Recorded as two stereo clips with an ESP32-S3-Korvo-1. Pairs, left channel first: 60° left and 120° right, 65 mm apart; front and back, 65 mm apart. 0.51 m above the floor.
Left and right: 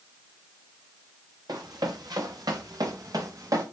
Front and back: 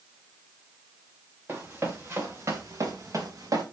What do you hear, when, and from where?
1.5 s running footsteps: 120° right, 3.5 m; by 3.6 s 150° right, 3 m